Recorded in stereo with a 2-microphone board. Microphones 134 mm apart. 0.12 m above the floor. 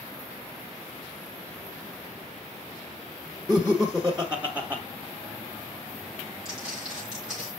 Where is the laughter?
15° left (ahead or behind), 1.2 m; by 4.8 s 20° right (ahead or behind), 1.3 m.